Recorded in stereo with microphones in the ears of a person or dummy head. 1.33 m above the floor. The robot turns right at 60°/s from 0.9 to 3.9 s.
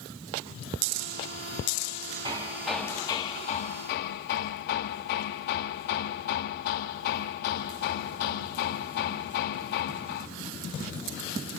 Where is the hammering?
15° right, 1.8 m; by 10.3 s 85° left, 1.8 m.